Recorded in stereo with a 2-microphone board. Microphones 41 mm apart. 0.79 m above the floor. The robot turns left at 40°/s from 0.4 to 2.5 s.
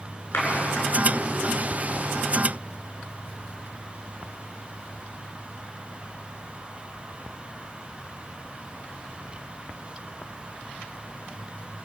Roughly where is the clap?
Left.